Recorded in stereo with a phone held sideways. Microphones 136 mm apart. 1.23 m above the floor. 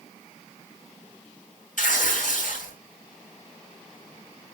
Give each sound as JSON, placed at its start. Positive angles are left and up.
{"t": 1.8, "sound": "tearing paper", "side_deg": 70, "distance_m": 5.5}